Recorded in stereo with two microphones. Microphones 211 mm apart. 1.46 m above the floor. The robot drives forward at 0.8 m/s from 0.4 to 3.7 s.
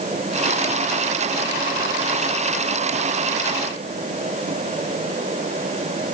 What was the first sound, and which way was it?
Only background noise.